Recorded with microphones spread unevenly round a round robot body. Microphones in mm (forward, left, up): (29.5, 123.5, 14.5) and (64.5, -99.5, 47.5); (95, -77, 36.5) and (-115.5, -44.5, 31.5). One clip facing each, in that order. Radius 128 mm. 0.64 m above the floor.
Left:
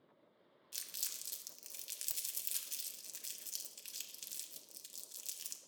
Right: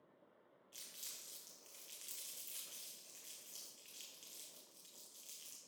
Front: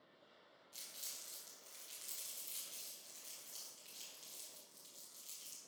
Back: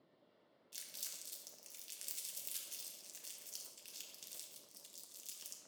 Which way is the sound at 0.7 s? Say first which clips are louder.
Even, back 1 dB; 120° left.